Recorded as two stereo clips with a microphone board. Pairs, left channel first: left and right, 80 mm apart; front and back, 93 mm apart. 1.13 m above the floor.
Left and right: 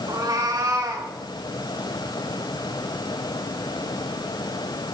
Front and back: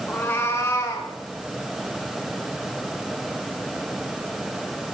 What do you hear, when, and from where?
0.1 s a cat meowing: 65° right, 2 m; by 1.1 s 50° right, 3 m